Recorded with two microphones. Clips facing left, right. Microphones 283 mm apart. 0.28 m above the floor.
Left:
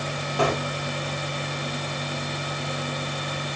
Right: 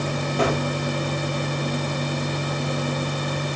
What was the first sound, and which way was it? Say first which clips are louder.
A gunshot: right 2 dB; 20° right (ahead or behind).